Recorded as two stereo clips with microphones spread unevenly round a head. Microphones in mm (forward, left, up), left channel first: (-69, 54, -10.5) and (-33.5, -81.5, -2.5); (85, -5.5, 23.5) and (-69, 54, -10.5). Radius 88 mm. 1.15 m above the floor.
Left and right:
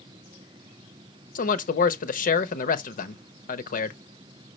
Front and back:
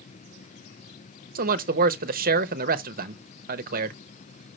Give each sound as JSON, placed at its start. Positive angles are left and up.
{"t": 1.4, "sound": "a man speaking", "azimuth_deg": 125, "distance_m": 1.0}